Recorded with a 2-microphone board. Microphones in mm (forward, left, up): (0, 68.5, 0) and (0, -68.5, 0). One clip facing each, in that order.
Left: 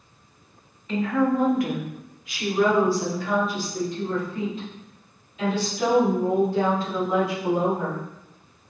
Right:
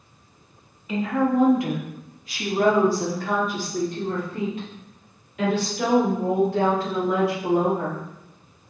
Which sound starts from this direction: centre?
A woman speaking, at 0.9 s.